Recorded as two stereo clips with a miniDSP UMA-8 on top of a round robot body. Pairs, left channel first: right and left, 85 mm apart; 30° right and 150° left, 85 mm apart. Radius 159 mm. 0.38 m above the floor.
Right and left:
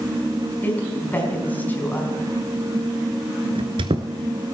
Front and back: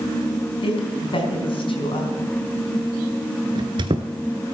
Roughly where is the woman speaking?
Ahead.